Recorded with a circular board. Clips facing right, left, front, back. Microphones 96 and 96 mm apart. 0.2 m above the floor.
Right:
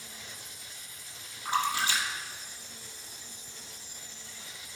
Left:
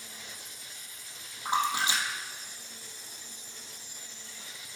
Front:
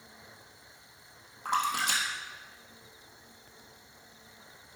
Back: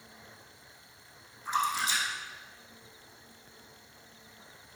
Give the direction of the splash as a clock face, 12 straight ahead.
11 o'clock.